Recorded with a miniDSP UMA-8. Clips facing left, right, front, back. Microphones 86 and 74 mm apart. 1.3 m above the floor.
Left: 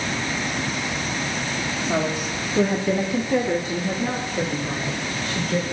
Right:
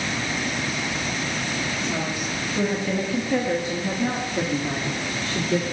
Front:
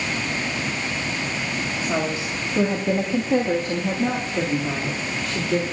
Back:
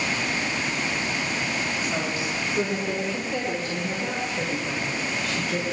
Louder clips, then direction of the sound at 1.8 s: Left 3 dB, front 3 dB; 45° left.